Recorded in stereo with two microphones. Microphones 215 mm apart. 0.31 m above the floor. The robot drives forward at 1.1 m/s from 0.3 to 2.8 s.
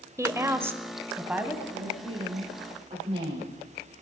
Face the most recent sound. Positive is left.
turn(degrees=-25)  # may be behind; listen again after turning